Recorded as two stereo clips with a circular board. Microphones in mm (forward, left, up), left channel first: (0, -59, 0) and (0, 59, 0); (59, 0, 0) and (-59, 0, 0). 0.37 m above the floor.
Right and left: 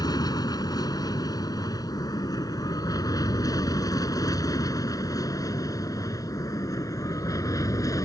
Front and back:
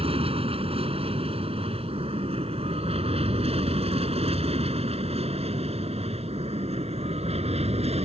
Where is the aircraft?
145° right; by 8.1 s 150° right.